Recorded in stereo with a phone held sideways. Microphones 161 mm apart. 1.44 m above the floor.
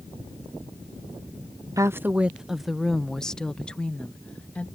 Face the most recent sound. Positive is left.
turn(degrees=10)  # may be behind; listen again after turning